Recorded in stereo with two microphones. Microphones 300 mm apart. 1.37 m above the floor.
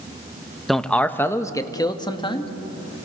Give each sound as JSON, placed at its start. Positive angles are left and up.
{"t": 0.7, "sound": "a man speaking", "side_deg": 0, "distance_m": 1.0}